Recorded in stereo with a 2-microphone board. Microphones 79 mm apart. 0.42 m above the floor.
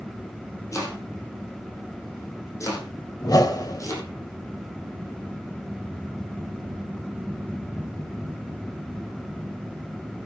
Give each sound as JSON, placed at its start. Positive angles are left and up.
{"t": 0.7, "sound": "chopping", "side_deg": 40, "distance_m": 6.0}
{"t": 3.2, "sound": "a whoosh", "side_deg": 55, "distance_m": 1.9}